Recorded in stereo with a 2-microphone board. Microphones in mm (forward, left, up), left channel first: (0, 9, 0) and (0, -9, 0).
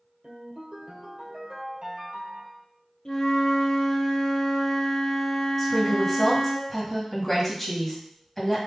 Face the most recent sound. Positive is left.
turn(degrees=10)  # may be behind; listen again after turning